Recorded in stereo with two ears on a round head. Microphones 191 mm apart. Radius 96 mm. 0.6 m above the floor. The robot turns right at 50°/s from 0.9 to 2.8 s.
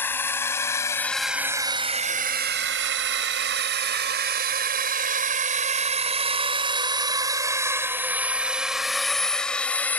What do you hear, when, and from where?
0.0 s a drone: 10° left (ahead or behind)